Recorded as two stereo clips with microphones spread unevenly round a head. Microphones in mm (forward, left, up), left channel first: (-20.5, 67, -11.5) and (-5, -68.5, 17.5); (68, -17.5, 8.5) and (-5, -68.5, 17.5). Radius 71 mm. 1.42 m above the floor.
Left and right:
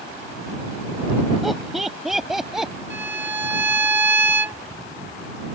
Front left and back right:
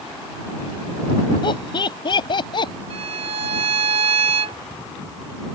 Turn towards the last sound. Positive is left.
turn(degrees=-155)